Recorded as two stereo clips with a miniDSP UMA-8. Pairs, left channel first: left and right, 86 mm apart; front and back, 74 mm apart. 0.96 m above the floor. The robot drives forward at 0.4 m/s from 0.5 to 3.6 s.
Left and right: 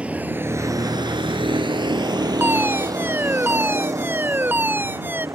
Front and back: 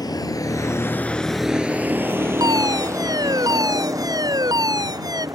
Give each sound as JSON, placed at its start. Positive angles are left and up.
{"t": 0.0, "sound": "a vehicle", "azimuth_deg": -15}
{"t": 2.4, "sound": "a fire alarm", "azimuth_deg": -155}